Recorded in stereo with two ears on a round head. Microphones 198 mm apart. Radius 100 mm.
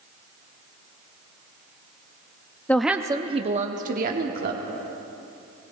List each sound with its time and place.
2.7 s a woman speaking: 10° left (ahead or behind), 0.6 m; by 4.6 s 45° right (ahead or behind), 1.6 m